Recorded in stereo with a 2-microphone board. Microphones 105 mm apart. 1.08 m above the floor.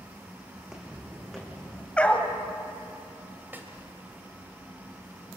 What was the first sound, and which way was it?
Footsteps, 5° right (ahead or behind).